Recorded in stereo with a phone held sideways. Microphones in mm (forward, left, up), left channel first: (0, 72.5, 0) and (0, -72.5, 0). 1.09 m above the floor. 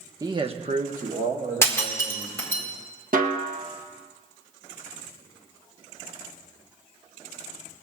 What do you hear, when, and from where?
0.2 s a man speaking: 25° right (ahead or behind), 1.1 m; by 2.6 s 50° right (ahead or behind), 3.5 m
1.6 s breaking glass: 20° left (ahead or behind), 2.0 m
3.1 s a snare drum: 70° right (ahead or behind), 1.2 m